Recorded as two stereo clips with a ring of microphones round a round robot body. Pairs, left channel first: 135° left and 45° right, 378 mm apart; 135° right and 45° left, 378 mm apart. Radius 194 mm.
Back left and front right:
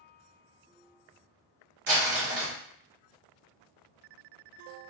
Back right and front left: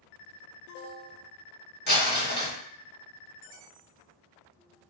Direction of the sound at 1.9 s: 80° right.